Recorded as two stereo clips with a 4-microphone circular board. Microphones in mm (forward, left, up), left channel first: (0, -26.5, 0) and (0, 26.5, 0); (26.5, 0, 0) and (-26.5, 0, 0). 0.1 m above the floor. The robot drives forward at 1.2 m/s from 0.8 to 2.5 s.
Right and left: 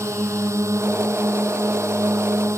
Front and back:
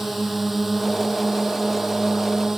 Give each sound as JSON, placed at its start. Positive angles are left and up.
{"t": 0.0, "sound": "a drone", "azimuth_deg": 95}